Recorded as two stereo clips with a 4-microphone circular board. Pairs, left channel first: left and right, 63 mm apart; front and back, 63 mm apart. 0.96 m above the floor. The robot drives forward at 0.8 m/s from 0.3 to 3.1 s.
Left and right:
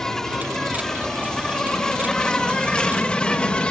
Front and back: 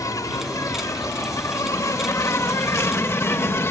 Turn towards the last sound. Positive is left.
turn(degrees=20)